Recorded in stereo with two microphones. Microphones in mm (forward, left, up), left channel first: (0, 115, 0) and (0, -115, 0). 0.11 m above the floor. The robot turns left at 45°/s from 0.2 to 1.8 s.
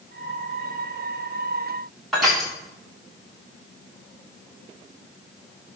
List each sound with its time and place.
2.1 s crushing: centre (ahead or behind), 7.5 m